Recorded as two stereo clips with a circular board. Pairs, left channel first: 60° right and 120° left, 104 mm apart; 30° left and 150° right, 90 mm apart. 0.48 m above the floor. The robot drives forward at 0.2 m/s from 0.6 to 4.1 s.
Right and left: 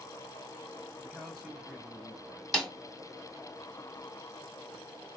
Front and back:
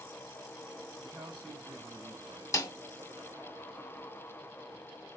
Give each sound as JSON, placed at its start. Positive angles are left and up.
{"t": 1.0, "sound": "a man speaking", "azimuth_deg": -155, "distance_m": 1.7}
{"t": 2.5, "sound": "a snare drum", "azimuth_deg": 30, "distance_m": 1.4}